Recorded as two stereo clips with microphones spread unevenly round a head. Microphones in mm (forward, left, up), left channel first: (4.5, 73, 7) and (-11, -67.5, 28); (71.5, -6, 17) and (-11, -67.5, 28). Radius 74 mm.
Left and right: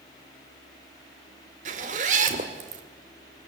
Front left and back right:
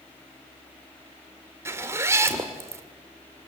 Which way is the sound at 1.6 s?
90° right.